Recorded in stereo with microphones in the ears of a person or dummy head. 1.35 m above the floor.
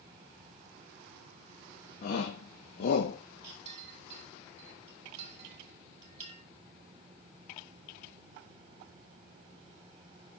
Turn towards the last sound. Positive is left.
turn(degrees=-40)  # may be behind; listen again after turning